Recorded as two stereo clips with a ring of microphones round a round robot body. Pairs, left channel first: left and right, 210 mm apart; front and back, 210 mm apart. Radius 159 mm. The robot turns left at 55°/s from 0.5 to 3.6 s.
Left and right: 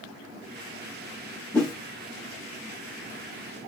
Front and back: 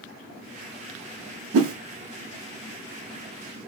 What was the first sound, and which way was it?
A whoosh, 170° left.